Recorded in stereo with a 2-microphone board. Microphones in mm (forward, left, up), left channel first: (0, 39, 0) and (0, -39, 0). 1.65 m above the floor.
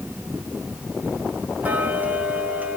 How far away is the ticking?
About 1.2 m.